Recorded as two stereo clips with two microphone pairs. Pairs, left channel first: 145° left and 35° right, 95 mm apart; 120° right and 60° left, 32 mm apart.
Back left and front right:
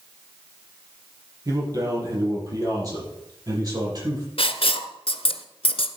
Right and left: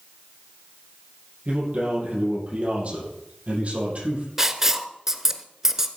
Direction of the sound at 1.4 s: 15° left.